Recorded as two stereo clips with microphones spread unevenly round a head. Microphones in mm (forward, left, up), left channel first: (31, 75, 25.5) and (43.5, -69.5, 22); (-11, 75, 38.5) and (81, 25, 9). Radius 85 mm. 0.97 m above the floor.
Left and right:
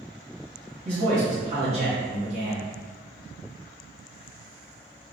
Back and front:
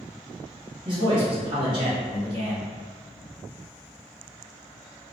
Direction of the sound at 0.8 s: 50° right.